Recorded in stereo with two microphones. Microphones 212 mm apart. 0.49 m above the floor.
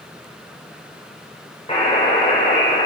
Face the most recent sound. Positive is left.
turn(degrees=25)  # may be behind; listen again after turning